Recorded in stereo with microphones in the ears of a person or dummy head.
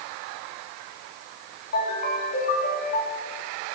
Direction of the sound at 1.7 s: 50° left (ahead or behind).